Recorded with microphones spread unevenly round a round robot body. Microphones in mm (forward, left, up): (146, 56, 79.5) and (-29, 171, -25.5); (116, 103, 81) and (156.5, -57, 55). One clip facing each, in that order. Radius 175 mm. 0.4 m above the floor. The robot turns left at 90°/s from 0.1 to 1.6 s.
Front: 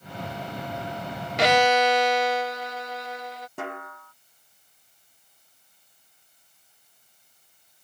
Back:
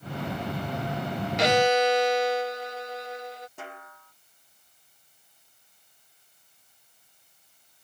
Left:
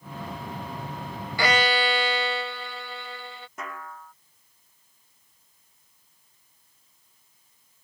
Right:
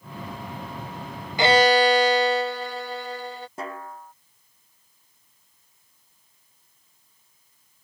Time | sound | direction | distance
1.4 | a violin | straight ahead | ?
3.6 | a snare drum | 20° right | ?